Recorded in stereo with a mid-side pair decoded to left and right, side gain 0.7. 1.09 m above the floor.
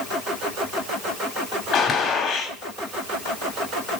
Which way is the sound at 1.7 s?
40° left.